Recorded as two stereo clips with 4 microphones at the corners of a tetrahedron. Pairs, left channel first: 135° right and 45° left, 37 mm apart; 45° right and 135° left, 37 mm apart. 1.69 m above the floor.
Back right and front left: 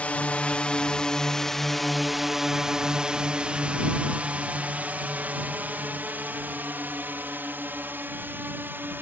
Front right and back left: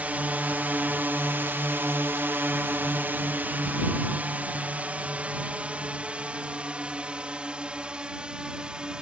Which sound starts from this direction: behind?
A drone, at 0.0 s.